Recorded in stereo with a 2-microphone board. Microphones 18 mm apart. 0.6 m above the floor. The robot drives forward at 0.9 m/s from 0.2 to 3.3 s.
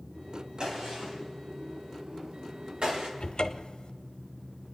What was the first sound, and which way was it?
A gunshot, 45° right (ahead or behind).